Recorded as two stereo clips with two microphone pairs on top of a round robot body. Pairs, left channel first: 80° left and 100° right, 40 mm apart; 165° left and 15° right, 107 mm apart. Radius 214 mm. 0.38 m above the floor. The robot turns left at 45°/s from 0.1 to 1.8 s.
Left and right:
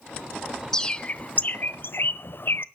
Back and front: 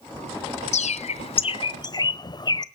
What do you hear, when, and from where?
0.7 s a bird: 155° left, 0.5 m; by 2.6 s 110° left, 0.5 m